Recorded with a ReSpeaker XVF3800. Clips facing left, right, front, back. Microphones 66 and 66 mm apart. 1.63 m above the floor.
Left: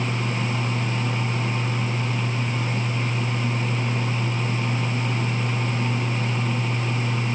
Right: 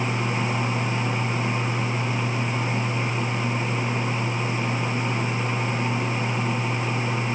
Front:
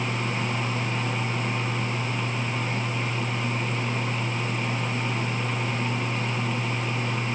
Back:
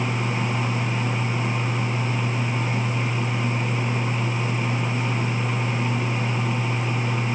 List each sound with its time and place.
Only background noise.